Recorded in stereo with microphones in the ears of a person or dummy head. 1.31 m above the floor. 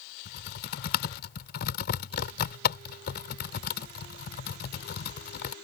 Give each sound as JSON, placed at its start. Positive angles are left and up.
{"t": 0.2, "sound": "typing on a keyboard", "side_deg": 60}